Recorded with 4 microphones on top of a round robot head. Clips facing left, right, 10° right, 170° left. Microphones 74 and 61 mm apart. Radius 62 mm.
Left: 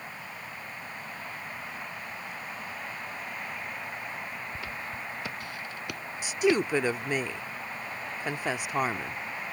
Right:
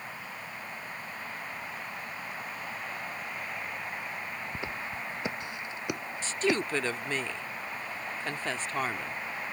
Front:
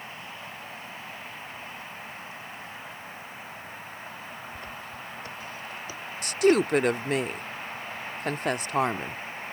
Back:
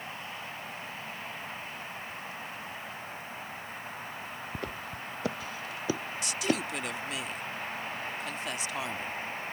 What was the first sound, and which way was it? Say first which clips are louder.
Footsteps: right 1 dB, back 1 dB; 160° right.